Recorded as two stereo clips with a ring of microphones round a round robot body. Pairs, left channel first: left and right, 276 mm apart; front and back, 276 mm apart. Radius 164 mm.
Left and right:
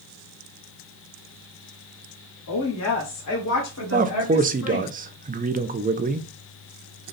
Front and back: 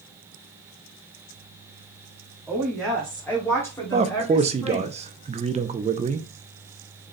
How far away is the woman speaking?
About 1.5 m.